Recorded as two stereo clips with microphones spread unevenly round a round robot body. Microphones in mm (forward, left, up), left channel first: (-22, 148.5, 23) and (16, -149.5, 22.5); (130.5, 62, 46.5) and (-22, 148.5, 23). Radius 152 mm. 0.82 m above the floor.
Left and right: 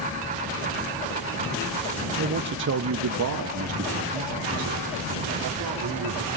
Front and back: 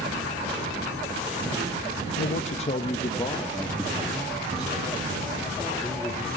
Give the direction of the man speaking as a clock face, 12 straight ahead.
1 o'clock.